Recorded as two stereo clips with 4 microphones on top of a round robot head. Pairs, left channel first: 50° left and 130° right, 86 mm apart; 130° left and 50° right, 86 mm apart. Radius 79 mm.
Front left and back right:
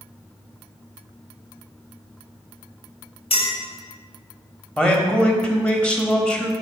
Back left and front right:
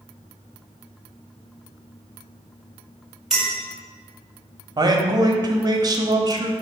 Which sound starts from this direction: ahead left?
A clink, at 3.3 s.